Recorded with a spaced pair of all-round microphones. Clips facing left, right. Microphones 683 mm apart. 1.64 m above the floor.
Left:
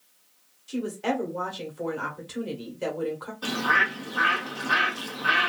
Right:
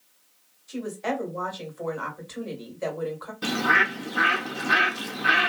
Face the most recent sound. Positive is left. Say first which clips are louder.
# right 4 dB
turn(degrees=-50)  # may be behind; listen again after turning